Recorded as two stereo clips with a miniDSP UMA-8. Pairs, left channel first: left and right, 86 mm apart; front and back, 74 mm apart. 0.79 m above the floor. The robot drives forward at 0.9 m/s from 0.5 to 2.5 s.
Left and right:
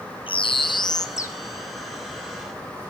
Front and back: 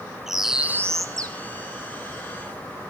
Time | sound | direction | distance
0.3 | a bird | 95° left | 0.6 m